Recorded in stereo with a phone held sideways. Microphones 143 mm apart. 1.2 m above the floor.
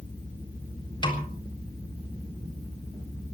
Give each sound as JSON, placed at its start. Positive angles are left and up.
{"t": 1.0, "sound": "a snare drum", "side_deg": 35, "distance_m": 3.5}